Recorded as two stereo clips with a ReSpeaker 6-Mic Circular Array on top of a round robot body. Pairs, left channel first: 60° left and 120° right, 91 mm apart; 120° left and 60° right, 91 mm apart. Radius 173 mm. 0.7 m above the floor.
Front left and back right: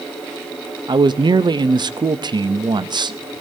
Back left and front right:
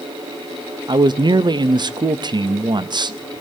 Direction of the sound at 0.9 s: 90° right.